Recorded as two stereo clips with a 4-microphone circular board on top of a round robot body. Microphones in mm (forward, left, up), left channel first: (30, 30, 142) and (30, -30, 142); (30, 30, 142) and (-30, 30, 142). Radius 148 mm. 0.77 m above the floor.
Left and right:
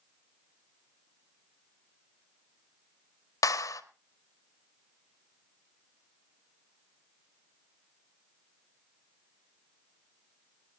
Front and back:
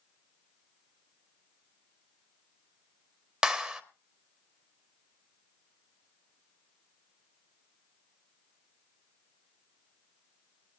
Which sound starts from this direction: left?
A clap, at 3.4 s.